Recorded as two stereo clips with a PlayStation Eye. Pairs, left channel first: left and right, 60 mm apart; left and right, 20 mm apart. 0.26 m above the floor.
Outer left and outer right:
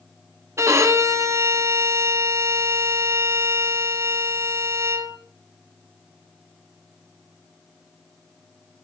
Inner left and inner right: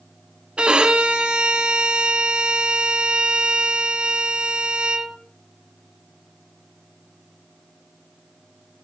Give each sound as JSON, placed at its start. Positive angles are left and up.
{"t": 0.6, "sound": "a violin", "side_deg": -60, "distance_m": 0.7}